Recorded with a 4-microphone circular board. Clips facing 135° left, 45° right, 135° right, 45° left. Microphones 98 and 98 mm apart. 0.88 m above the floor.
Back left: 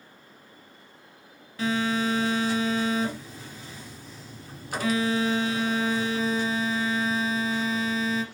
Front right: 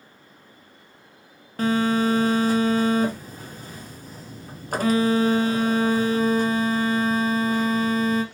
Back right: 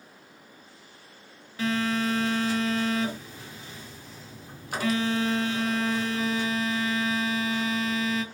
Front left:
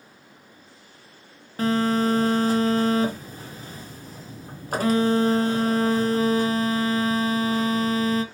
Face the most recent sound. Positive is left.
turn(degrees=0)